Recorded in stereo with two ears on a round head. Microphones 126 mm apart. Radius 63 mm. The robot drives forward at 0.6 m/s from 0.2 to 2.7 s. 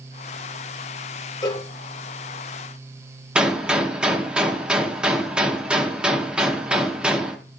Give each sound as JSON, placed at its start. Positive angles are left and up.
{"t": 1.4, "sound": "a cowbell", "side_deg": 30, "distance_m": 0.7}
{"t": 3.4, "sound": "a gunshot", "side_deg": -5, "distance_m": 0.9}